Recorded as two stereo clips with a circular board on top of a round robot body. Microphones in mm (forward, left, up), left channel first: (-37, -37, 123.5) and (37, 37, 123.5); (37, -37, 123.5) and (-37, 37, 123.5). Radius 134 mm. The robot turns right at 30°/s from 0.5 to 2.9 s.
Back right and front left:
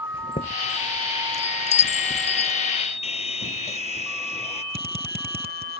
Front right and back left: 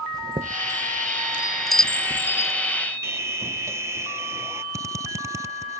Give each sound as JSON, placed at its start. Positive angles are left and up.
{"t": 0.1, "sound": "a chime", "azimuth_deg": -170}
{"t": 3.0, "sound": "sawing", "azimuth_deg": -160}
{"t": 4.7, "sound": "a drill", "azimuth_deg": 70}